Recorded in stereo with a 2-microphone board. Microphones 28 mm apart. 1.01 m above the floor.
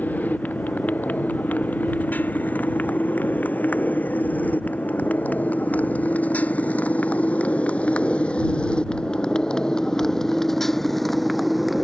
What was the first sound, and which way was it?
A motorcycle, 85° left.